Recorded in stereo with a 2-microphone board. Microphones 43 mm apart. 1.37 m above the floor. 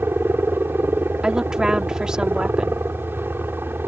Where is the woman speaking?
15° right (ahead or behind).